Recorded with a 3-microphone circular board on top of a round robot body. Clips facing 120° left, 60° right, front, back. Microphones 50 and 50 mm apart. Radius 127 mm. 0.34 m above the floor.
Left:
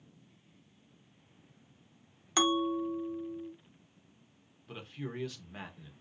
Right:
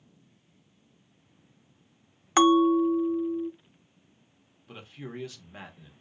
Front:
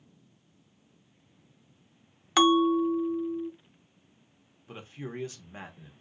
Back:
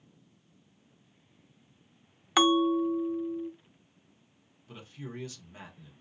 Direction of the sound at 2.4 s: 100° right.